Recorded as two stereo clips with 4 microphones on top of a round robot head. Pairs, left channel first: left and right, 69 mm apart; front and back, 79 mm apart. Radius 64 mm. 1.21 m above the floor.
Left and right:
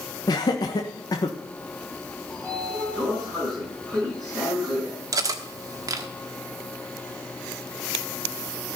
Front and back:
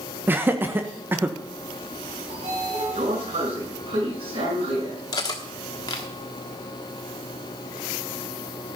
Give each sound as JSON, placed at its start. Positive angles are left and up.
{"t": 0.3, "sound": "laughter", "azimuth_deg": 115, "distance_m": 1.3}
{"t": 2.3, "sound": "a sliding door", "azimuth_deg": 175, "distance_m": 5.5}
{"t": 5.1, "sound": "cutlery clinking", "azimuth_deg": -60, "distance_m": 1.2}